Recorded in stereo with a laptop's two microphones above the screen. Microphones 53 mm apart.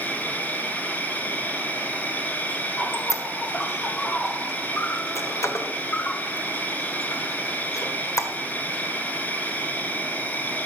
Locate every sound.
0.0 s an insect: 30° left (ahead or behind), 0.7 m
2.9 s a squeak: 75° left (ahead or behind), 1.4 m